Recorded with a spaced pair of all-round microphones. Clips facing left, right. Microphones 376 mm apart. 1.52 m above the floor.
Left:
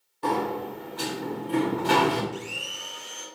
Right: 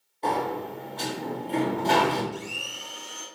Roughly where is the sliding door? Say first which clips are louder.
Left 1 dB; centre.